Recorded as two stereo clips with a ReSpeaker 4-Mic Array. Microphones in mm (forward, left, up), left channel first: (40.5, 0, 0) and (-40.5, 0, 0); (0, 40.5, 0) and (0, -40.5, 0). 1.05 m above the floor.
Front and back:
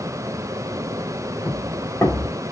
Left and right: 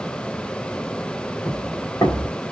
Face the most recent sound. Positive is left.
turn(degrees=45)